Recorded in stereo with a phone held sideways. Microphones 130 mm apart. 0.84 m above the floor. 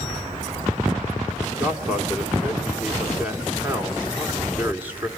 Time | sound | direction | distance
1.6 | a man speaking | 10° right (ahead or behind) | 3 m